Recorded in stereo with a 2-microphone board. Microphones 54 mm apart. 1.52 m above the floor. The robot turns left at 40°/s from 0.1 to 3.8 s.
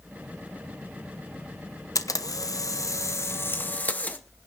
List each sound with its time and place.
1.9 s a camera shutter: 100° left, 1.0 m; by 4.2 s 25° left, 1.0 m